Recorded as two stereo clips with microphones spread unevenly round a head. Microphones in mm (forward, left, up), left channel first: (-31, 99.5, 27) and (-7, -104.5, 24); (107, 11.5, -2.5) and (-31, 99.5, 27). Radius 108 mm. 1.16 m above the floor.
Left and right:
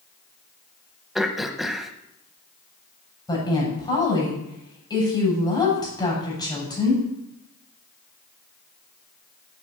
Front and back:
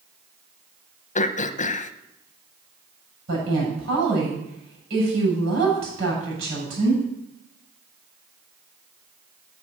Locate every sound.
1.1 s throat clearing: 5° left, 0.9 m
3.3 s a woman speaking: 170° left, 7.5 m